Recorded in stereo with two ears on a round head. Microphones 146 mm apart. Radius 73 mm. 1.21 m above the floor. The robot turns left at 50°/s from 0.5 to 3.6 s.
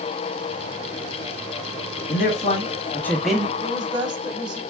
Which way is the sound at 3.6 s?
30° right (ahead or behind).